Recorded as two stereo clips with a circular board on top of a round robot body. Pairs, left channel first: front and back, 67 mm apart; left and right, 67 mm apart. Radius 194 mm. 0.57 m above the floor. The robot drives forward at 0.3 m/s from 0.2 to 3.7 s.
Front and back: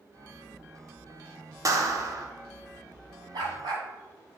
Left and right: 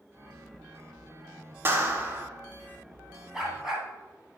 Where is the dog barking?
175° right, 2 m.